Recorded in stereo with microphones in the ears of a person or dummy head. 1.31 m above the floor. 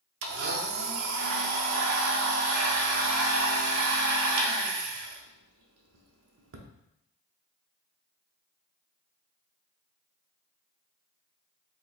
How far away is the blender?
About 0.5 m.